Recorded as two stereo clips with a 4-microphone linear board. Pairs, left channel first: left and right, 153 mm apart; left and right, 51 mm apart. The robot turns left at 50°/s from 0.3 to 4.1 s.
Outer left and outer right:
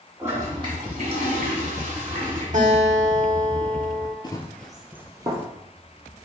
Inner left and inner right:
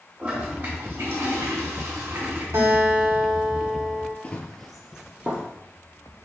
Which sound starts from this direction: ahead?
A toilet flushing, at 0.2 s.